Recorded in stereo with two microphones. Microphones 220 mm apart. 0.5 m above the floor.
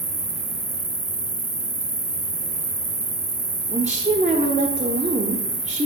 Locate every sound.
0.0 s an insect: 30° right (ahead or behind), 1.0 m
3.7 s a woman speaking: 30° right (ahead or behind), 0.9 m